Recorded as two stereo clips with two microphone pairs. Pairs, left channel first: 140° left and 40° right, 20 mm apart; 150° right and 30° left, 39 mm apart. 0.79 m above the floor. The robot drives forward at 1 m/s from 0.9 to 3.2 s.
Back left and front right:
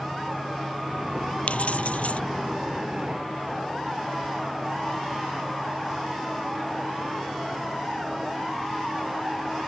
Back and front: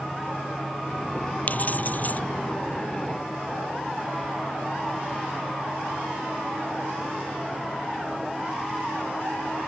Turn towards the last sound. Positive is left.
turn(degrees=160)